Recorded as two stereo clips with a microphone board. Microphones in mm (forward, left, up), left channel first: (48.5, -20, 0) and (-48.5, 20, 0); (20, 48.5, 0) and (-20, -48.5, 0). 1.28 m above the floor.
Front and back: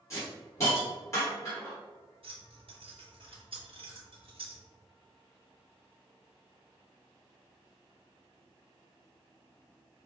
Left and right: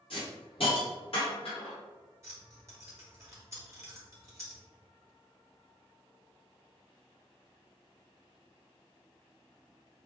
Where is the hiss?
40° left, 1.9 m.